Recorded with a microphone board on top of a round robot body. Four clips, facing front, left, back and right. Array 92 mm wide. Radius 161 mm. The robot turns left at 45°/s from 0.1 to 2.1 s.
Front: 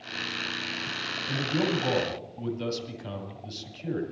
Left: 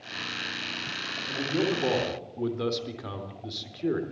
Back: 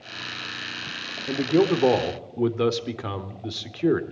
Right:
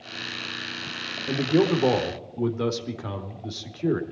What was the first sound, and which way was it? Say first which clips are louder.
A man speaking: right 7 dB, back 8 dB; 135° right.